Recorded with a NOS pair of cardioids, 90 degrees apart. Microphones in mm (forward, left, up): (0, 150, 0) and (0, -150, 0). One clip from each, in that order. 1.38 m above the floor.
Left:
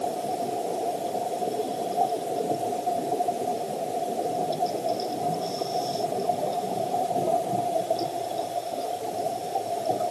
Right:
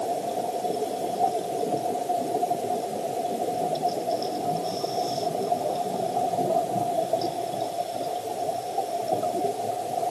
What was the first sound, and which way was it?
Only background noise.